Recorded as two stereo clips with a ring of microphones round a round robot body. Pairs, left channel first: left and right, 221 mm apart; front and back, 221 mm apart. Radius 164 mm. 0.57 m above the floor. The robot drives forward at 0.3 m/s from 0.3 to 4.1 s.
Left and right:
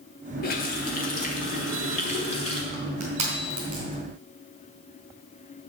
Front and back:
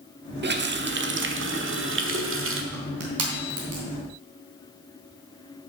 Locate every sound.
0.4 s a running tap: 140° left, 1.0 m; by 2.6 s 155° left, 1.6 m
2.7 s crushing: 160° right, 3 m